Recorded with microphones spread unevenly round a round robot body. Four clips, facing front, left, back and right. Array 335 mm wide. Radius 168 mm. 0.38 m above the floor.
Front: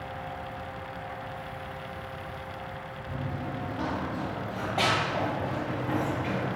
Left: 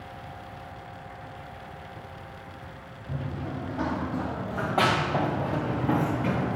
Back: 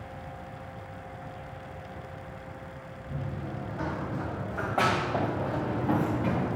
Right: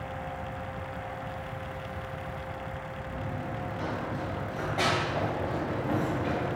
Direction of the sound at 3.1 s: 70° left.